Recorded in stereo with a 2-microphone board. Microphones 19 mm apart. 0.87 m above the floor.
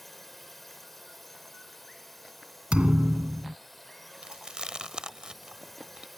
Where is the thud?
65° right (ahead or behind).